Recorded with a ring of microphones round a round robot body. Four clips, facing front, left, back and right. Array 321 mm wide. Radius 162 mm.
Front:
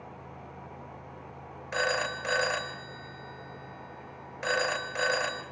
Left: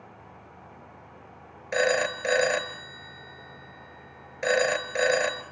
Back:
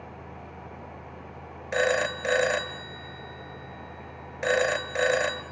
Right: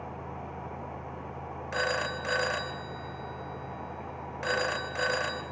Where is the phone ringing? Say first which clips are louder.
Left 7 dB, back 5 dB; 135° left, 1.5 m.